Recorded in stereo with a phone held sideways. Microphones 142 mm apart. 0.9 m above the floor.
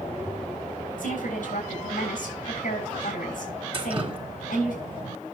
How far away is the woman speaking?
About 7.5 m.